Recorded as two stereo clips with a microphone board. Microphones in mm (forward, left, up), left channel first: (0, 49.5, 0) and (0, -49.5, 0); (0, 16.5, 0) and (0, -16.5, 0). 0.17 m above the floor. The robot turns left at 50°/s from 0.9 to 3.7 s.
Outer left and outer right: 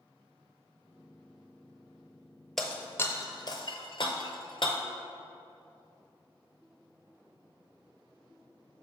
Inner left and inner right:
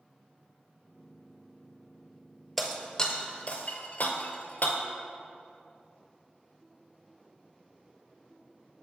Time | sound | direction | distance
2.6 | breaking glass | centre (ahead or behind) | 0.8 m